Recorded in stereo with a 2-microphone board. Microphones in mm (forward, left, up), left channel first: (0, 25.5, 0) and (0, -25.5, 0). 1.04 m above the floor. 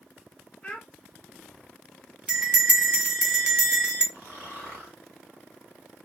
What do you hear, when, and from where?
0.6 s a child speaking: 15° left (ahead or behind), 1.0 m
2.3 s a bell: 15° right (ahead or behind), 0.7 m
4.1 s snoring: 55° right (ahead or behind), 1.8 m